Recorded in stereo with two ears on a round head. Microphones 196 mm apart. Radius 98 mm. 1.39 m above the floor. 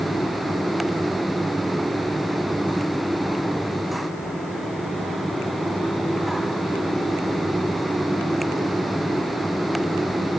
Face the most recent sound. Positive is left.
No sound to turn to.